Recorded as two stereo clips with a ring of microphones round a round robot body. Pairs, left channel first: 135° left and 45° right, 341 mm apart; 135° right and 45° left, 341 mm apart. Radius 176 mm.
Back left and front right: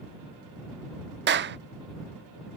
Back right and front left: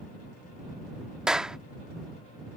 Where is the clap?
40° right.